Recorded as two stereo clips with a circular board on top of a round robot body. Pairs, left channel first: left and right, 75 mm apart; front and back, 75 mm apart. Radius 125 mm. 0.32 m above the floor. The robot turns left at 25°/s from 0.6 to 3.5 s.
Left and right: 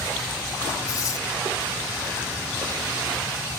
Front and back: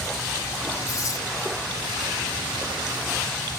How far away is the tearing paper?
About 6.5 m.